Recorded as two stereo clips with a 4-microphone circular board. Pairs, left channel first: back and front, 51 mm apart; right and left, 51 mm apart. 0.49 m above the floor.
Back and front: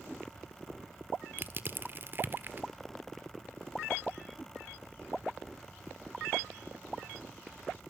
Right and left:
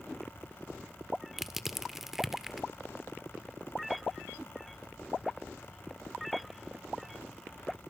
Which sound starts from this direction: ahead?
Crushing, at 1.4 s.